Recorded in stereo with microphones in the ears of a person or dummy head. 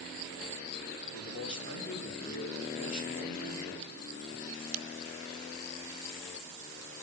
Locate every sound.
1.0 s a man speaking: 35° left (ahead or behind), 3 m